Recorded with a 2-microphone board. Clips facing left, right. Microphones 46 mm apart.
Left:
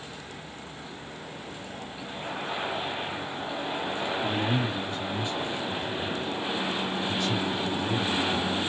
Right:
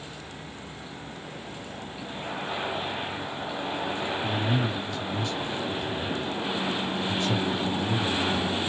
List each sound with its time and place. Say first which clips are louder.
4.2 s a man speaking: even; 45° left (ahead or behind), 1.4 m; by 8.6 s 55° right (ahead or behind), 1.8 m